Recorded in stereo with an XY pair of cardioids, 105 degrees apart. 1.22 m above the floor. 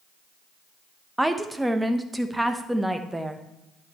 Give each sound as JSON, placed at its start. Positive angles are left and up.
{"t": 1.2, "sound": "a woman speaking", "azimuth_deg": -10, "distance_m": 1.1}